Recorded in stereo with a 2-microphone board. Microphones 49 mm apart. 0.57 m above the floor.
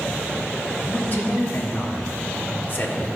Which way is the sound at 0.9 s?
40° left (ahead or behind).